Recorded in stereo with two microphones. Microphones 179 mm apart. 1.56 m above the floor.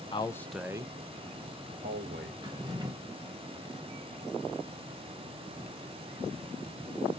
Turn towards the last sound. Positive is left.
turn(degrees=-25)  # may be behind; listen again after turning